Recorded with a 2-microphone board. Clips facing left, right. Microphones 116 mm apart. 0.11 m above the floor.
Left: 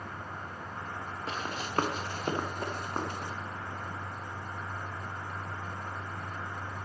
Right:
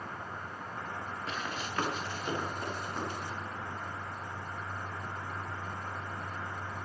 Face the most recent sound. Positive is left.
turn(degrees=50)  # may be behind; listen again after turning